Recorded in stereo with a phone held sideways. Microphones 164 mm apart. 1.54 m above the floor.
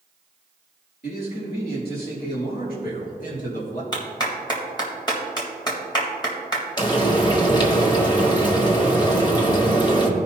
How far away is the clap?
About 1.8 m.